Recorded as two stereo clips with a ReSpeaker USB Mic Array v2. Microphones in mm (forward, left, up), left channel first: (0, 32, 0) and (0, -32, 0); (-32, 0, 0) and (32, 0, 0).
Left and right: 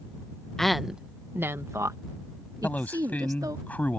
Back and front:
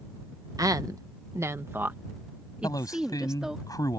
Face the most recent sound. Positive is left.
turn(degrees=155)